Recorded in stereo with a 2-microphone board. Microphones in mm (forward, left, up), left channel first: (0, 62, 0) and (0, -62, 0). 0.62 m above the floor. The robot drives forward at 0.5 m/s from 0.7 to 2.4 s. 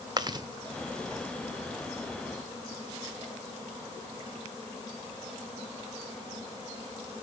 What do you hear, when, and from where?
0.2 s chewing: 35° right (ahead or behind), 0.8 m